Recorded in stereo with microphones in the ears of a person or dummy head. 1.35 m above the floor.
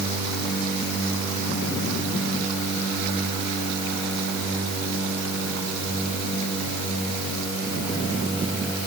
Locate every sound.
Only background noise.